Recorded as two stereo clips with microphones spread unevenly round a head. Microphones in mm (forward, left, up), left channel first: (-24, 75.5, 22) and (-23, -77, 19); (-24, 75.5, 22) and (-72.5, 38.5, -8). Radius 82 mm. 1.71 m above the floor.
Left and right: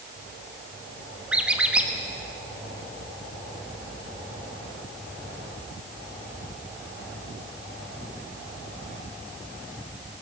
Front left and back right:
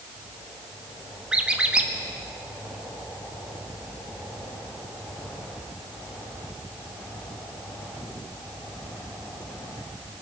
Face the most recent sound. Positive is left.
turn(degrees=-10)